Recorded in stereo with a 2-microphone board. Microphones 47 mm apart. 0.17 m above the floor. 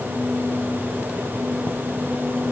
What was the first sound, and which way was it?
Only background noise.